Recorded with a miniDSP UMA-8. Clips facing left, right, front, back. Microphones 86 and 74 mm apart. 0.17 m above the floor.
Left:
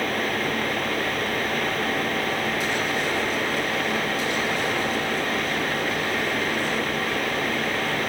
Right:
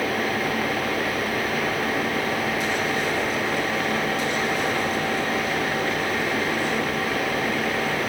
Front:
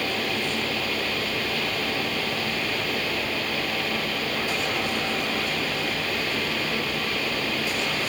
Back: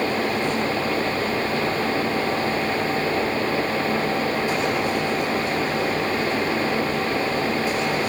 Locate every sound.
Only background noise.